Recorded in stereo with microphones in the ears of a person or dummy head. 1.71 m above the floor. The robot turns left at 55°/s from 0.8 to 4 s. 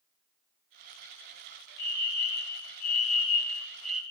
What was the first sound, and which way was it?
A fire alarm, 120° left.